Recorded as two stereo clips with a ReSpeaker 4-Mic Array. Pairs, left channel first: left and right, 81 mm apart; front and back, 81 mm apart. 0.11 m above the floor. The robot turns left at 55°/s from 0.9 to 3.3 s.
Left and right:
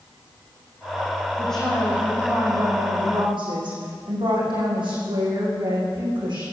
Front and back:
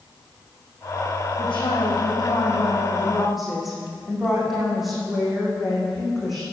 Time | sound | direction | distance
1.4 | a woman speaking | 15° left | 7 m